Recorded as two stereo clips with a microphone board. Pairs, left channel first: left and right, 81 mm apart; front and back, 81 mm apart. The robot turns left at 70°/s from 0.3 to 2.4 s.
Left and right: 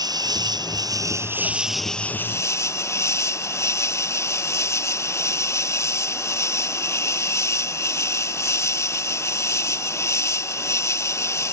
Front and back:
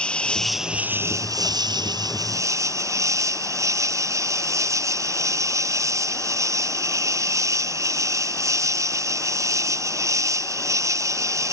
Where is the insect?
75° right; by 11.5 s 140° left.